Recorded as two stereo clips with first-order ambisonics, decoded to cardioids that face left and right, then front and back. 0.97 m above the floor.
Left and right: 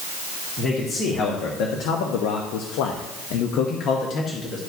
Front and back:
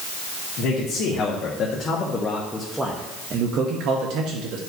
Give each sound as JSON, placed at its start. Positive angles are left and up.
{"t": 0.6, "sound": "a man speaking", "azimuth_deg": 45, "distance_m": 1.7}